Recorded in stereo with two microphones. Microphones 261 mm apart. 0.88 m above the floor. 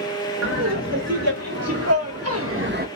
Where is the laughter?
80° right, 3.5 m; by 2.9 s 35° right (ahead or behind), 0.7 m.